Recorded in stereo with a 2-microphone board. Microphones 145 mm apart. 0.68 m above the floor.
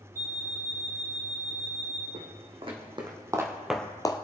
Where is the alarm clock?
75° right (ahead or behind), 3.5 m.